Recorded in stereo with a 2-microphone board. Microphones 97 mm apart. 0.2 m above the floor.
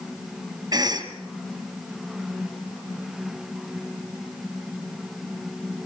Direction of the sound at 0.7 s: 40° right (ahead or behind).